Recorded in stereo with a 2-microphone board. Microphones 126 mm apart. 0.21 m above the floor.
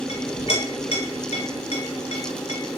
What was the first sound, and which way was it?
A clink, 55° left (ahead or behind).